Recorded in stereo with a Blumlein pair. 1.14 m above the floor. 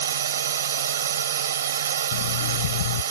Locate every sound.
0.0 s a drone: 65° right
2.1 s an alarm clock: 55° left